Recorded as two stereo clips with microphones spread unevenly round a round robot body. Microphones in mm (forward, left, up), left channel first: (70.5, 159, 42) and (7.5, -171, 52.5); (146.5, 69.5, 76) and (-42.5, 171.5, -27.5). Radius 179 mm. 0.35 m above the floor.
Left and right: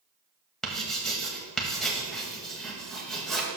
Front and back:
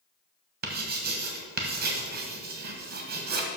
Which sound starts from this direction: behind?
Writing, at 0.6 s.